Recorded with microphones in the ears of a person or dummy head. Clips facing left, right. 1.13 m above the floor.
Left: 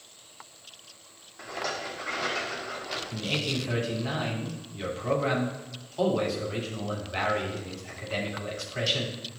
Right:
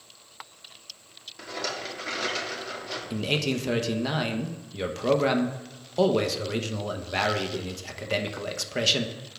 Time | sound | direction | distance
1.4 | a rattle | 40° right (ahead or behind) | 1.6 m
3.1 | a man speaking | 65° right (ahead or behind) | 0.8 m